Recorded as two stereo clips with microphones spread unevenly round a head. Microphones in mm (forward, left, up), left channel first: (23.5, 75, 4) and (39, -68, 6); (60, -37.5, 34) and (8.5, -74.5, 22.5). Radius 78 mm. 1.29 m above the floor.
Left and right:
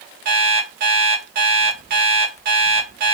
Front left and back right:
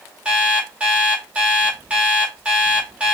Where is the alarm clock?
70° right, 1.1 m.